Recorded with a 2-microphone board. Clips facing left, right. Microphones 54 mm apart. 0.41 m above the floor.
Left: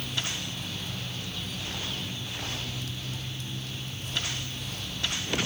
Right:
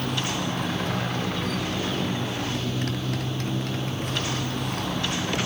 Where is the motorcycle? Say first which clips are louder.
Right 7 dB; 65° right (ahead or behind).